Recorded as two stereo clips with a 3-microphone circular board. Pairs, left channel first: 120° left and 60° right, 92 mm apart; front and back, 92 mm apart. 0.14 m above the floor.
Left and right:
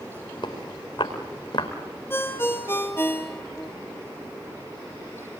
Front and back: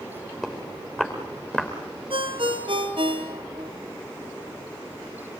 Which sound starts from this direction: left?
Footsteps, at 0.4 s.